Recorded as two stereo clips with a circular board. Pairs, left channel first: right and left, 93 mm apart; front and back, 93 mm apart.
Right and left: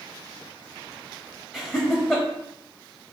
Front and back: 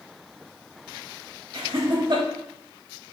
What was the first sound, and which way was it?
Laughter, 165° right.